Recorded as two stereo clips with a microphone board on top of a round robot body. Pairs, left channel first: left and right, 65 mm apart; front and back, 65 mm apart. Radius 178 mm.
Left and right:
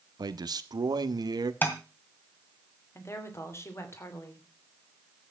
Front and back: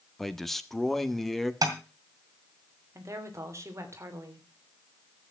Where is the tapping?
155° left, 2 m.